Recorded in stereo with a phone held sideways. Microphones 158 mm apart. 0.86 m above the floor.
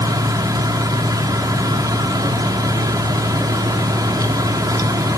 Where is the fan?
25° right (ahead or behind), 1.5 m.